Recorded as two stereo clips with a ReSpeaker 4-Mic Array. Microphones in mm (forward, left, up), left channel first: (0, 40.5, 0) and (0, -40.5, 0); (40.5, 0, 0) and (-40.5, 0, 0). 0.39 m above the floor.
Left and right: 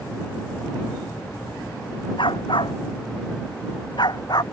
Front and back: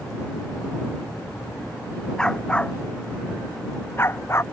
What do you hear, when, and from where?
2.2 s a dog barking: 80° left; by 4.4 s 55° left